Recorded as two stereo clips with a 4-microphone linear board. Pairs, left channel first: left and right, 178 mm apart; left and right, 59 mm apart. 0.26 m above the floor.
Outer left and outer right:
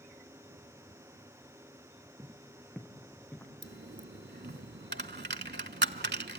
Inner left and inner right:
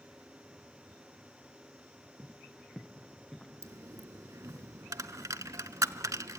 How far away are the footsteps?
About 1.4 m.